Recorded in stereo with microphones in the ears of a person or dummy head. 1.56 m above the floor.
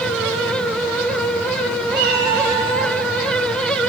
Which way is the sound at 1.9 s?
25° right (ahead or behind).